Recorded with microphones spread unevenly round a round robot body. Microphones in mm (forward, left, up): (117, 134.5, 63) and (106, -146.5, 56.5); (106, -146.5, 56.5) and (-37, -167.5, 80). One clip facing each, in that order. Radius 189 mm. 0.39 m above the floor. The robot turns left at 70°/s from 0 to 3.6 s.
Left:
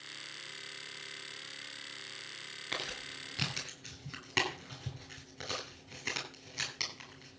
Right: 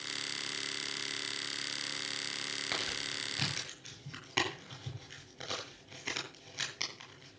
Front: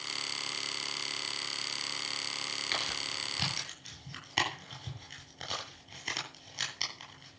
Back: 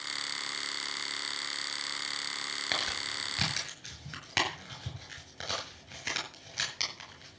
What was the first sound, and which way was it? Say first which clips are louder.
Crumpling: even, back 2 dB; 135° right.